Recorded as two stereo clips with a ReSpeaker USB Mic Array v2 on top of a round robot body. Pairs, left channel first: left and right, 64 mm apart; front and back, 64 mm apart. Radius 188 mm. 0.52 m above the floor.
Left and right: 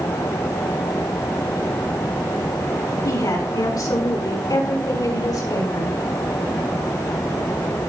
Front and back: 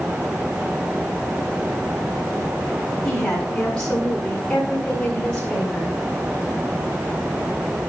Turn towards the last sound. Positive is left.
turn(degrees=75)